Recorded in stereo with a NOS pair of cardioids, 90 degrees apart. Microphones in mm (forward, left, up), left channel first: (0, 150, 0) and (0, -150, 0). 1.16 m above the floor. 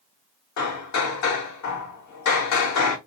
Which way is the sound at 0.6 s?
60° left.